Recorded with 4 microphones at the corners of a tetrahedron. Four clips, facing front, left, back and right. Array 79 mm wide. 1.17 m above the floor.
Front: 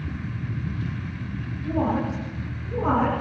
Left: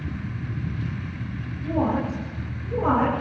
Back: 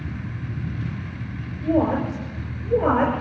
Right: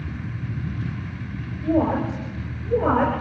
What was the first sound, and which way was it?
A woman speaking, 145° right.